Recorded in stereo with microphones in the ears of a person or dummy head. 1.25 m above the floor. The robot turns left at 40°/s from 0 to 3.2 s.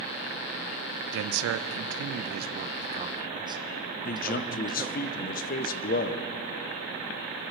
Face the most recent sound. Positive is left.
turn(degrees=45)  # may be behind; listen again after turning